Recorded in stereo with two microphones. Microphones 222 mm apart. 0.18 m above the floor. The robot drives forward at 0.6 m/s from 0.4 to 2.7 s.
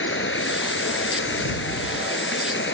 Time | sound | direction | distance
0.0 | running water | 65° left (ahead or behind) | ?